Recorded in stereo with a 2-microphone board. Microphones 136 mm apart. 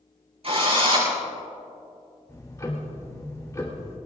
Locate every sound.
0.4 s a drill: 50° right (ahead or behind), 6 m
2.3 s ticking: 25° left (ahead or behind), 3 m